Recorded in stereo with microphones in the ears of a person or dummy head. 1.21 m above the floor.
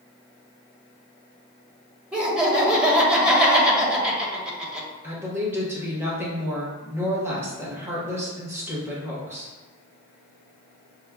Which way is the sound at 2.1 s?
10° right (ahead or behind).